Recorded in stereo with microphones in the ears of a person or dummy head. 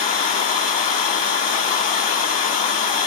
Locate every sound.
0.0 s running water: 35° left (ahead or behind), 0.9 m